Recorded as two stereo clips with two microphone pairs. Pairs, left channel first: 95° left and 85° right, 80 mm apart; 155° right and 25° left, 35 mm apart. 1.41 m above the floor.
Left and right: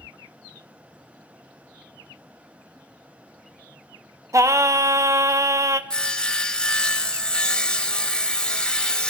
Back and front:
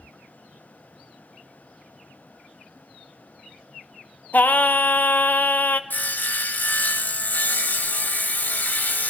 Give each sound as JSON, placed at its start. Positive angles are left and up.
{"t": 4.3, "sound": "singing", "azimuth_deg": -130, "distance_m": 0.6}
{"t": 5.9, "sound": "sawing", "azimuth_deg": 175, "distance_m": 1.1}